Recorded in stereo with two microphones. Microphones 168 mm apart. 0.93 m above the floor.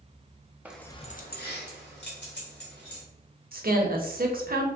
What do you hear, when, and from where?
0.7 s keys jangling: 10° right (ahead or behind), 0.6 m; by 3.0 s 80° left, 2.5 m
3.5 s a woman speaking: 60° right (ahead or behind), 0.8 m